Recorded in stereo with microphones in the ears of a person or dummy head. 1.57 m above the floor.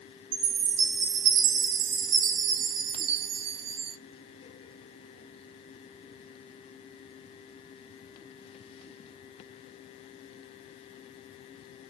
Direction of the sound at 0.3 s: 75° right (ahead or behind).